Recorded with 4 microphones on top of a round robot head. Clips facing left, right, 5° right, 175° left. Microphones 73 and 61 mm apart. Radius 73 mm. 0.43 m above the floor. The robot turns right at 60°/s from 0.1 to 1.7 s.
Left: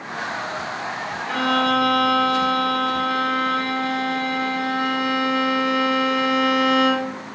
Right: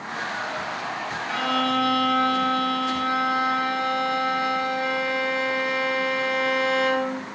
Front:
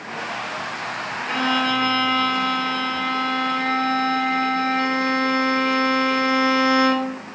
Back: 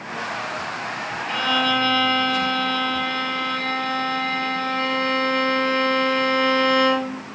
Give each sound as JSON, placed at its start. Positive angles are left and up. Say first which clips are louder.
{"t": 1.3, "sound": "a violin", "louder": "left 4 dB, even", "azimuth_deg": 35, "distance_m": 7.5}